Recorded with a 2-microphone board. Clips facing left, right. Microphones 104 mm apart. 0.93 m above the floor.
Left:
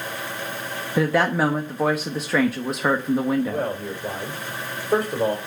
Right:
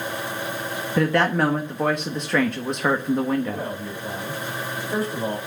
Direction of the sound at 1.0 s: 5° left (ahead or behind).